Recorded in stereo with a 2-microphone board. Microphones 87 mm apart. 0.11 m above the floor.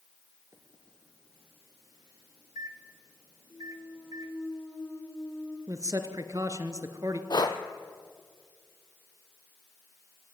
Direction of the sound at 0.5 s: 50° right (ahead or behind).